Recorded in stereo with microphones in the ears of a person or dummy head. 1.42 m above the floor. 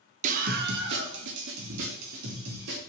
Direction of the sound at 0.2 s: 45° right (ahead or behind).